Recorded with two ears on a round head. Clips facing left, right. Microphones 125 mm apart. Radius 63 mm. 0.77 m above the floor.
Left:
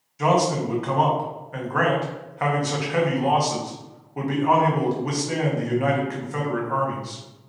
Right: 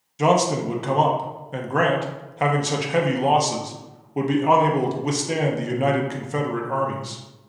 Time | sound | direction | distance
0.2 | a man speaking | 30° right (ahead or behind) | 0.7 m